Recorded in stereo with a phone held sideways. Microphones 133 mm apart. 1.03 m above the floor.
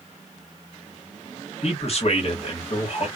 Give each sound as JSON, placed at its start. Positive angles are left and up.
{"t": 1.6, "sound": "a man speaking", "side_deg": 50, "distance_m": 1.2}